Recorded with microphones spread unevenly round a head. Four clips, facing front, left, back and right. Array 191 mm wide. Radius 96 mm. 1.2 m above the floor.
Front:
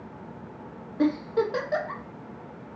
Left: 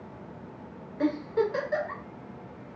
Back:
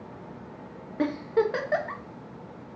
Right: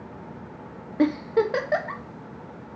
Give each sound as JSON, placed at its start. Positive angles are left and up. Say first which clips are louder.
{"t": 1.0, "sound": "a giggle", "louder": "right 5 dB, front 1 dB", "azimuth_deg": -105, "distance_m": 1.0}